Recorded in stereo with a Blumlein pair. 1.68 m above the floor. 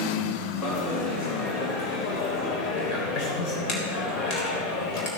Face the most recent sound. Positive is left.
turn(degrees=35)